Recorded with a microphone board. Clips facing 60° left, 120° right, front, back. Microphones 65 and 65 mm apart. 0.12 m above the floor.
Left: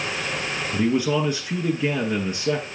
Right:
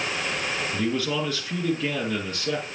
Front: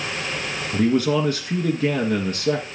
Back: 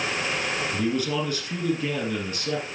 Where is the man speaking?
5° right, 1.6 m.